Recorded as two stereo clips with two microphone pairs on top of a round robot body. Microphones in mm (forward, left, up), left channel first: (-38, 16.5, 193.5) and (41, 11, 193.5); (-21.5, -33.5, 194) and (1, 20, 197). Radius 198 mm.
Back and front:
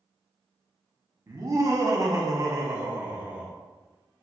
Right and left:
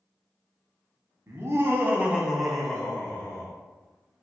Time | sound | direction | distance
1.3 | laughter | 40° left | 1.3 m